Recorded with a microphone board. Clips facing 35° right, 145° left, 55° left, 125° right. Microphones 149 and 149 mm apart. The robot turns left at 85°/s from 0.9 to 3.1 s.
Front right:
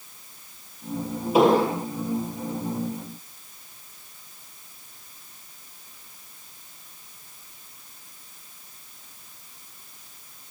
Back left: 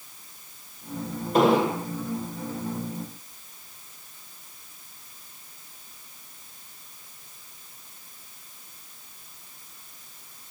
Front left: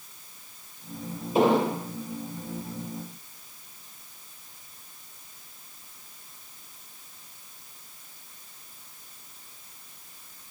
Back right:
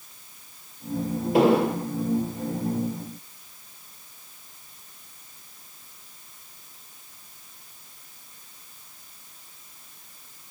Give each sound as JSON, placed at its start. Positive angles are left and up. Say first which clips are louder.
{"t": 1.3, "sound": "an explosion", "louder": "front right 2 dB, back right 2 dB", "azimuth_deg": -115, "distance_m": 3.5}